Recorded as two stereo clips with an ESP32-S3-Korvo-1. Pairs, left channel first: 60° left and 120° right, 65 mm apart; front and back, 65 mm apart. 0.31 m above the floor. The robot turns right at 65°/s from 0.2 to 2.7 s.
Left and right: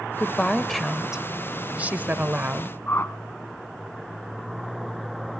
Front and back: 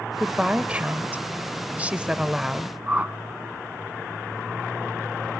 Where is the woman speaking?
110° left, 0.9 m; by 2.8 s 90° right, 0.9 m.